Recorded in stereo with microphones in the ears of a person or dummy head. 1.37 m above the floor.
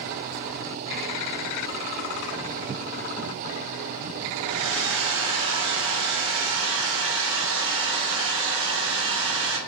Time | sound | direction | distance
4.5 | a hair dryer | 60° right (ahead or behind) | 0.8 m